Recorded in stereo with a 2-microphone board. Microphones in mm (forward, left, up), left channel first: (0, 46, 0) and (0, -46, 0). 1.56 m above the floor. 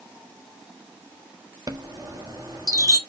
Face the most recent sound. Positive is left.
turn(degrees=-40)  # may be behind; listen again after turning